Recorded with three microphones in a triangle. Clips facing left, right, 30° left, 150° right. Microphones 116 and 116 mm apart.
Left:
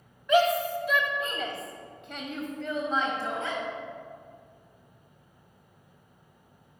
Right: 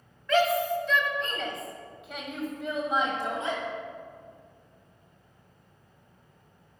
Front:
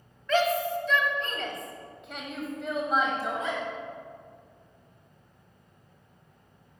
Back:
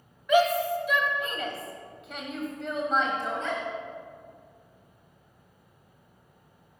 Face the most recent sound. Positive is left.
turn(degrees=-40)